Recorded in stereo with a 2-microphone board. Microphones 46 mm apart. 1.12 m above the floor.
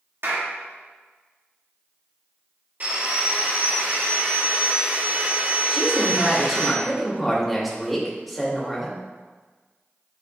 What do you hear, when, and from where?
0.2 s a clap: 75° right (ahead or behind), 2 m
2.8 s sawing: 45° right (ahead or behind), 2.5 m
5.7 s a woman speaking: centre (ahead or behind), 2 m